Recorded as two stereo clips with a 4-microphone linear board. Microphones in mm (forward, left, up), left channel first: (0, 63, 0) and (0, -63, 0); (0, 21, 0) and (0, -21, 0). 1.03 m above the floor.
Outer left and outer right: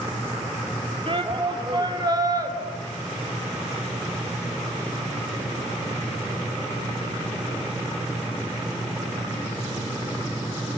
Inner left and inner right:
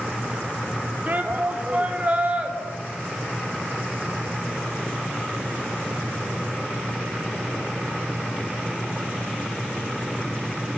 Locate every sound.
1.1 s a shout: 45° right (ahead or behind), 3.5 m; by 2.5 s 30° right (ahead or behind), 4 m